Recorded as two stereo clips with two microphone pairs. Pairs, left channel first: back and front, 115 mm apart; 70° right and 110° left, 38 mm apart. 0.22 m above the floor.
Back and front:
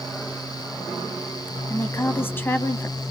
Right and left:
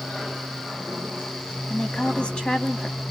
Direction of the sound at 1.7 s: 125° right.